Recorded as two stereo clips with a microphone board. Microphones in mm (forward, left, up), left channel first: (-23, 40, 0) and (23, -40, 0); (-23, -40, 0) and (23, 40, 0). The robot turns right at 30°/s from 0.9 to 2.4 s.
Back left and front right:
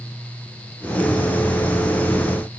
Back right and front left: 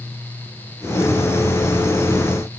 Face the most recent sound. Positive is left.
No sound to turn to.